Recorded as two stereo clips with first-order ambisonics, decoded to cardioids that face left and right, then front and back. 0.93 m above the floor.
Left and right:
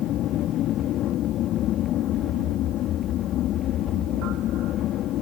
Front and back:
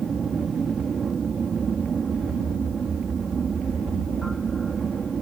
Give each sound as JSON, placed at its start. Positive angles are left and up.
{"t": 0.0, "sound": "an aircraft", "azimuth_deg": 120}